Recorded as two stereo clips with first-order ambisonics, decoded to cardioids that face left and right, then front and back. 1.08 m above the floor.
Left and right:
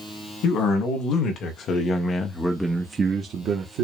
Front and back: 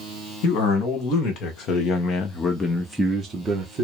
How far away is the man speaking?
About 1.7 m.